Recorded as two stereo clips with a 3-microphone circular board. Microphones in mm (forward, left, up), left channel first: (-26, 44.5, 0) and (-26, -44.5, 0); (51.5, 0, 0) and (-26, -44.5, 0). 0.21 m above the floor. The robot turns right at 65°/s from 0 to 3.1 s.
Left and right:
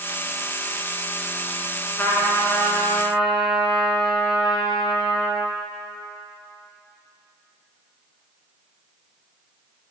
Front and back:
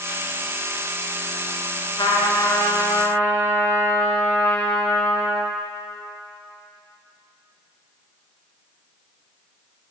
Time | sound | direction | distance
2.0 | a trumpet | 20° left | 1.4 m